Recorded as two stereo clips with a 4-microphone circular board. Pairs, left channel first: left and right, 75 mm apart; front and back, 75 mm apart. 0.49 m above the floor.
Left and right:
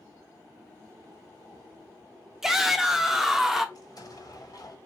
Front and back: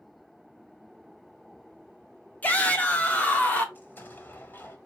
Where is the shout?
15° right, 0.7 m.